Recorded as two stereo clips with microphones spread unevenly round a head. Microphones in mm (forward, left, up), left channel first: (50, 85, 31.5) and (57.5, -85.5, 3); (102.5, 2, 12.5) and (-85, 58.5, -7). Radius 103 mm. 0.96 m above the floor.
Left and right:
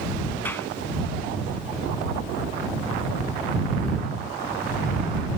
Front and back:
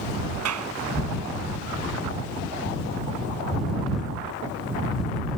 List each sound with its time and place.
0.5 s a clap: 175° left